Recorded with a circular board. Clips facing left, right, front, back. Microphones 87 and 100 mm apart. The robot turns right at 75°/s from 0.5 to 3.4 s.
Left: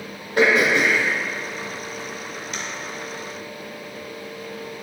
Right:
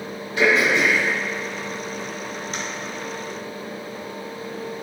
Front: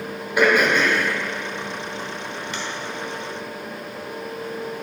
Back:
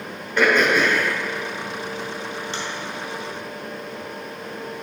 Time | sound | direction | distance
0.4 | throat clearing | 75° left | 1.4 m